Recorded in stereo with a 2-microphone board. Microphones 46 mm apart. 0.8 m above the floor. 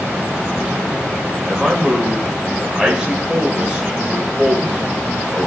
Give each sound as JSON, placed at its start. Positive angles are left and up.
{"t": 1.5, "sound": "a man speaking", "side_deg": -10, "distance_m": 3.5}